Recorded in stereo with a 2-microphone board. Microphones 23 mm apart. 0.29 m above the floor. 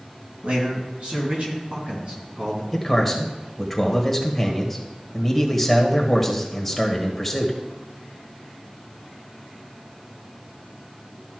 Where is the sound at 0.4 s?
65° right (ahead or behind), 3.5 m; by 2.6 s 40° right (ahead or behind), 3.5 m.